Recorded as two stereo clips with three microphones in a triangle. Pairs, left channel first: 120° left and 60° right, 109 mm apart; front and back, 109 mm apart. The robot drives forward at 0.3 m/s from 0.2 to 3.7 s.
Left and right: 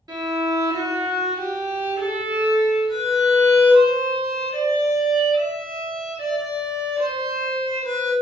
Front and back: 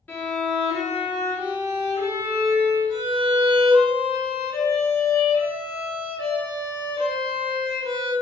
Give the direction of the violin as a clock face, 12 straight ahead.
2 o'clock.